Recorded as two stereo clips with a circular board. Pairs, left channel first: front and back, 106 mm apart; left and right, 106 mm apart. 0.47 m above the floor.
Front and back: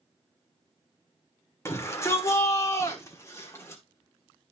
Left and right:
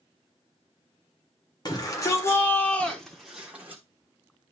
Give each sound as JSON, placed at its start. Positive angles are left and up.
{"t": 1.6, "sound": "a shout", "azimuth_deg": 55, "distance_m": 1.5}